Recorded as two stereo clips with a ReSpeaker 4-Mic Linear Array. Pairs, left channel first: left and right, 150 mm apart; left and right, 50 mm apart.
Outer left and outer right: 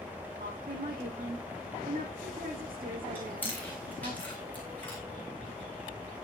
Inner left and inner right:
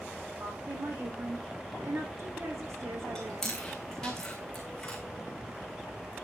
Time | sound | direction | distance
0.4 | a woman speaking | 70° right (ahead or behind) | 5.5 m
3.1 | chewing | 10° left (ahead or behind) | 4.5 m